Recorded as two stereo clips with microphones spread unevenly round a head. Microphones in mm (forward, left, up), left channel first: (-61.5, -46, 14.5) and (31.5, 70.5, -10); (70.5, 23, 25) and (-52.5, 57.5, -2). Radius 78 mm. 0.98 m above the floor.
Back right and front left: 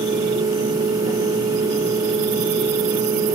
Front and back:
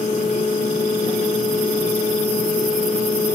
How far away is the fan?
About 1.1 m.